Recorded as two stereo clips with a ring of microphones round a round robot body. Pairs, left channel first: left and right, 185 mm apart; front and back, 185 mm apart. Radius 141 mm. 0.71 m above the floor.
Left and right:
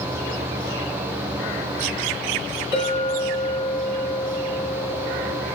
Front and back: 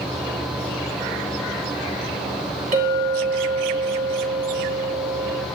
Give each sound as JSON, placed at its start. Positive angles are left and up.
{"t": 2.7, "sound": "a clink", "azimuth_deg": 140, "distance_m": 3.0}